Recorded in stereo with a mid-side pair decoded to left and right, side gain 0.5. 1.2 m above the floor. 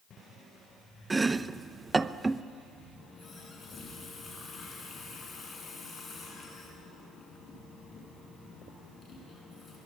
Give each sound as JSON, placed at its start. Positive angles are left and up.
{"t": 1.1, "sound": "chopping", "azimuth_deg": -20, "distance_m": 0.7}
{"t": 3.0, "sound": "a running tap", "azimuth_deg": 40, "distance_m": 9.0}